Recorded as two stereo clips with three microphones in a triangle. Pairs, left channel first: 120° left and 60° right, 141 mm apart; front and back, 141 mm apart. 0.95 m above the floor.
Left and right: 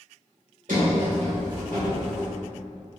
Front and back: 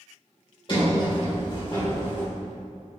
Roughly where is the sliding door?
Ahead right.